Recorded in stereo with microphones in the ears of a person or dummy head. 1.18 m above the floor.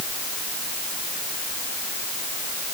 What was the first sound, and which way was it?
Only background noise.